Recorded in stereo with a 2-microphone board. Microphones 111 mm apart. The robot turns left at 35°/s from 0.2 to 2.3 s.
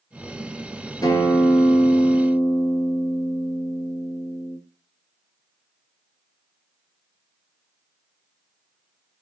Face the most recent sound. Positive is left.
turn(degrees=0)